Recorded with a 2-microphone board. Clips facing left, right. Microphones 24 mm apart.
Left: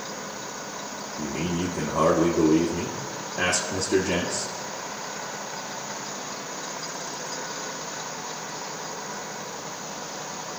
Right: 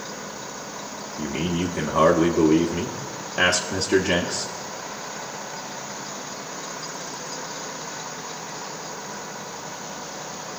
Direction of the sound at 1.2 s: 55° right (ahead or behind).